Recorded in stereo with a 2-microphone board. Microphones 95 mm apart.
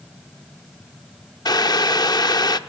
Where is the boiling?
45° left (ahead or behind), 0.5 m.